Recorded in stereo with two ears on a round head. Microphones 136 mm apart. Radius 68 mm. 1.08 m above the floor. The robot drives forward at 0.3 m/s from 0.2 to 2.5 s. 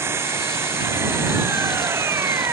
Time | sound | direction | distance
0.0 | an engine running | 15° right (ahead or behind) | ?